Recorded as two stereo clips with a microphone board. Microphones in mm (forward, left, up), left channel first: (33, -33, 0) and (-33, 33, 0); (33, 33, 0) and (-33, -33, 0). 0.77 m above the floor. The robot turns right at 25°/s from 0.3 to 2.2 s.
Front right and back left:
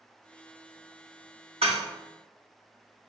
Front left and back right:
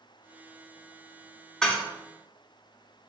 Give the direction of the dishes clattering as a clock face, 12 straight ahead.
8 o'clock.